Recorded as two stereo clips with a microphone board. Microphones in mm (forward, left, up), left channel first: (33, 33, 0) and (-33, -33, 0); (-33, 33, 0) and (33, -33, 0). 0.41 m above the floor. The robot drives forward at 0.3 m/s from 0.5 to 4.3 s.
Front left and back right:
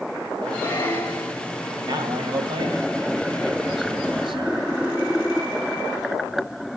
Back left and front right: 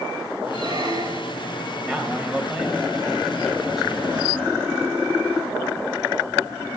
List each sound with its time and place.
0.5 s a squeak: 25° right, 4.5 m
1.9 s a man speaking: 120° right, 2.0 m; by 4.7 s 135° right, 2.5 m